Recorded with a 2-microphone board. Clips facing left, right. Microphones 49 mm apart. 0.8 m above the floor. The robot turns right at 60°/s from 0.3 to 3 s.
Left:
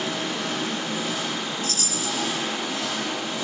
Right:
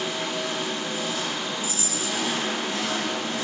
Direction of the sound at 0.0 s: 95° left.